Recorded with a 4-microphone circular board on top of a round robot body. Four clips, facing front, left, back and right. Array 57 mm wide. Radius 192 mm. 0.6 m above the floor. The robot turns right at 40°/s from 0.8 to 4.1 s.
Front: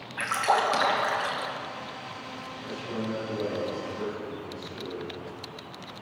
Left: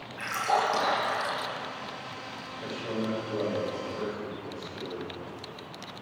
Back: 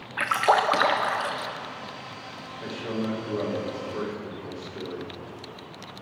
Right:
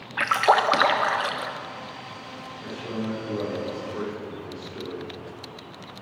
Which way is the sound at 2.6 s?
Straight behind.